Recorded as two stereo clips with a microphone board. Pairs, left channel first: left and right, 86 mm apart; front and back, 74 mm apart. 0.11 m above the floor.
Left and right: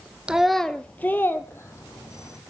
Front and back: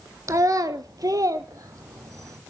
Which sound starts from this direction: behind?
A child speaking, at 0.3 s.